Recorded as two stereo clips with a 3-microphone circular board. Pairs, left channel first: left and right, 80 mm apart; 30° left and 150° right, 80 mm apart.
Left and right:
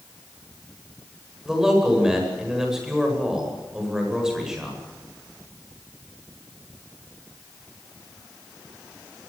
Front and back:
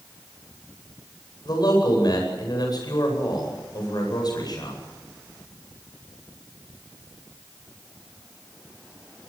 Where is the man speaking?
5° right, 9 m.